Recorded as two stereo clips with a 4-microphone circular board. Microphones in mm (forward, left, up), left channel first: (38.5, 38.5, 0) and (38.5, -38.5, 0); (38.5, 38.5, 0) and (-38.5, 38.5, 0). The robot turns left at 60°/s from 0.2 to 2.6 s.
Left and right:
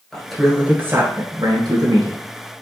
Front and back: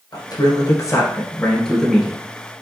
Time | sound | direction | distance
0.1 | a man speaking | 5° left | 2.0 m